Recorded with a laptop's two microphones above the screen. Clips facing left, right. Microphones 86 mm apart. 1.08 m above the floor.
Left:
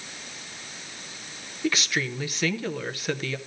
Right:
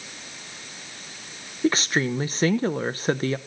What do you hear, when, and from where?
1.6 s a woman speaking: 35° right (ahead or behind), 0.7 m